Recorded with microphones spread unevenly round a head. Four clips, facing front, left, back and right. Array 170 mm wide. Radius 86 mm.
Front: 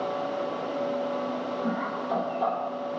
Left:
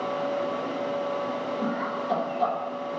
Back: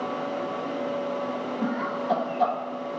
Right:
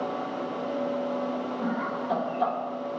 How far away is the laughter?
About 1.0 m.